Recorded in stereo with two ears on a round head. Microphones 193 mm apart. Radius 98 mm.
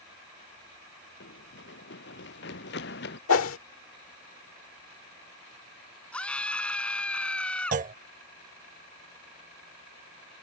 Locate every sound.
1.2 s running footsteps: 55° left (ahead or behind); by 3.2 s 50° left (ahead or behind)
3.3 s a whoosh: 70° left (ahead or behind)
6.1 s a scream: 5° left (ahead or behind)
7.7 s a clunk: 35° right (ahead or behind)